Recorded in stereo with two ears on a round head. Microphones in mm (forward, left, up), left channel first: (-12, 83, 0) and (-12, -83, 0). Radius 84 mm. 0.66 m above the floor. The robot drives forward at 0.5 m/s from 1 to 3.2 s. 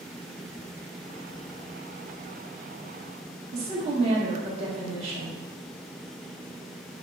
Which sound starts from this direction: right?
A woman speaking, at 3.5 s.